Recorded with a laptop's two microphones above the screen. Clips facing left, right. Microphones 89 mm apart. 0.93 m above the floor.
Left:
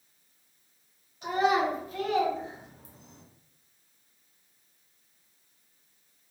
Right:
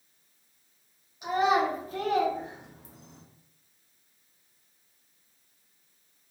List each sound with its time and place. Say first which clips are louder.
1.2 s a child speaking: right 1 dB; 15° right (ahead or behind), 1.0 m; by 3.2 s 75° right (ahead or behind), 0.8 m